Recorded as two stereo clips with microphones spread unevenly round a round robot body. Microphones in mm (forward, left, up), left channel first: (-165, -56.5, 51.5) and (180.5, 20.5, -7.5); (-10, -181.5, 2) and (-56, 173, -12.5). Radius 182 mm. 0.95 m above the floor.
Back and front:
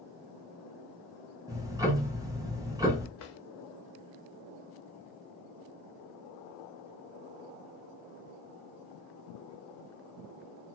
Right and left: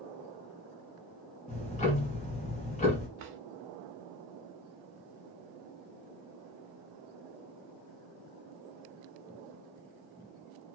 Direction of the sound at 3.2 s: 145° left.